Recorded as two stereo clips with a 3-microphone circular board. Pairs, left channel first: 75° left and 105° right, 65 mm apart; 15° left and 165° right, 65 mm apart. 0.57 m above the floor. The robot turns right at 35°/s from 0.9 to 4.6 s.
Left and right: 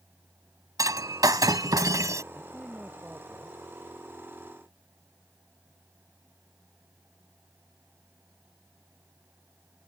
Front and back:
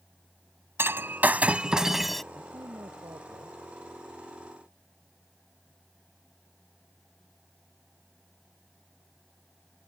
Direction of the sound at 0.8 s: 115° right.